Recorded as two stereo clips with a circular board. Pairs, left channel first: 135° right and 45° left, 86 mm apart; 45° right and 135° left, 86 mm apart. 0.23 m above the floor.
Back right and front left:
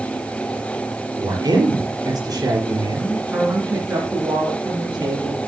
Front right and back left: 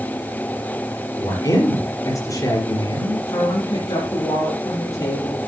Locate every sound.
1.2 s a man speaking: 5° right, 4.5 m
3.3 s a woman speaking: 20° right, 4 m